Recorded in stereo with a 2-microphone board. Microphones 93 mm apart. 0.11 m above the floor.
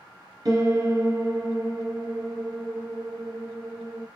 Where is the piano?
40° right (ahead or behind), 1.0 m.